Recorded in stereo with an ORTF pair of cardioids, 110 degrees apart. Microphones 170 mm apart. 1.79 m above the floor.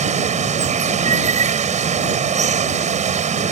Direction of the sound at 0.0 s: 45° right.